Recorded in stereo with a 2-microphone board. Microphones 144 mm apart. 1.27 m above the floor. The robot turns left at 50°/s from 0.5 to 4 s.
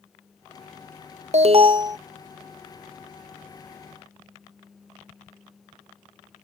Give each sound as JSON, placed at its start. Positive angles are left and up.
{"t": 1.3, "sound": "an alarm", "azimuth_deg": -125}